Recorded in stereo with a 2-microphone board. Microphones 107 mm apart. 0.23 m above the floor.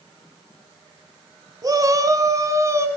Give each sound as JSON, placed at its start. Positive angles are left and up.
{"t": 1.6, "sound": "a shout", "side_deg": -35, "distance_m": 1.5}